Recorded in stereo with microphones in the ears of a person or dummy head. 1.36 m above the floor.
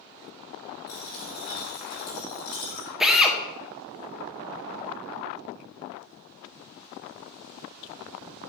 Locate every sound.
0.9 s a dropped coin: 50° left (ahead or behind), 1.8 m
3.0 s a drill: centre (ahead or behind), 0.6 m